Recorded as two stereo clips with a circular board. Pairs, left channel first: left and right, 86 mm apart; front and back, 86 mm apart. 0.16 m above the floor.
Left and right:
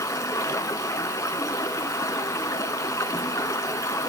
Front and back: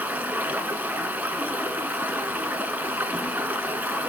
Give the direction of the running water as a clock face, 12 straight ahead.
8 o'clock.